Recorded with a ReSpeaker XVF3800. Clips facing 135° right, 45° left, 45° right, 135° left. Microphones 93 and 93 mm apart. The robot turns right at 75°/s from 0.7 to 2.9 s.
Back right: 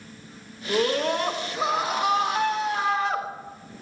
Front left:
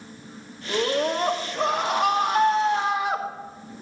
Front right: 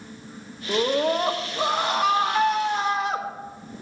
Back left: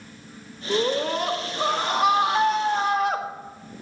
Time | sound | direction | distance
0.7 | a scream | 50° right | 1.5 m